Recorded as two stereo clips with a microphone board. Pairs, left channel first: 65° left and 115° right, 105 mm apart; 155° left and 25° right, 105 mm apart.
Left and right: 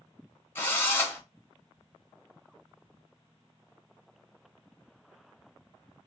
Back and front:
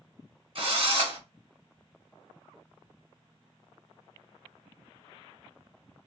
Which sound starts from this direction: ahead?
A drill, at 0.6 s.